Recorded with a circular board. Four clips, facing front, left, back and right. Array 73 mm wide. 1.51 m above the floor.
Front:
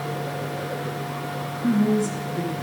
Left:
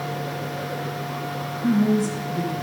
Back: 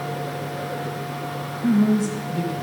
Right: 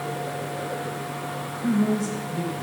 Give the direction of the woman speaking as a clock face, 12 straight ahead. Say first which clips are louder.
Left 3 dB, back 2 dB; 5 o'clock.